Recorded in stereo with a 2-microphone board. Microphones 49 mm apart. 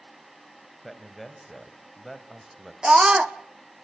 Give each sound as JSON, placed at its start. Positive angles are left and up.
{"t": 0.8, "sound": "a man speaking", "side_deg": 0, "distance_m": 2.5}
{"t": 2.8, "sound": "a scream", "side_deg": -20, "distance_m": 0.8}